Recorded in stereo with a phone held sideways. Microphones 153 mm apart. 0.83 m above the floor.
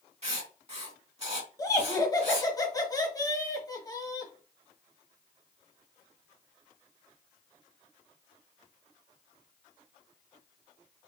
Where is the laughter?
25° left (ahead or behind), 1.1 m.